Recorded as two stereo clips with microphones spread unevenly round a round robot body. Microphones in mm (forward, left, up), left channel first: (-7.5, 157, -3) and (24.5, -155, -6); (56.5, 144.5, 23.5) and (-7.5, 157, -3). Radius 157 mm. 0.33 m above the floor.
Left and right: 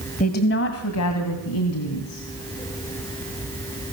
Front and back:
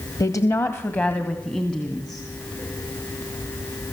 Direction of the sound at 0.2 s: 35° left.